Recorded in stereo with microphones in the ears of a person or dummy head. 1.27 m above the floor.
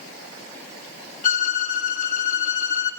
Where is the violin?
45° left (ahead or behind), 3.5 m.